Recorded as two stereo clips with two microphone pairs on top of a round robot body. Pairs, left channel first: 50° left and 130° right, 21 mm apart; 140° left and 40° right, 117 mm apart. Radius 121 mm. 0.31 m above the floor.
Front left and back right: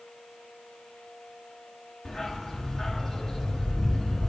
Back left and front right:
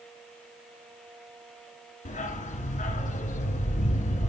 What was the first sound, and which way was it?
A dog barking, 120° left.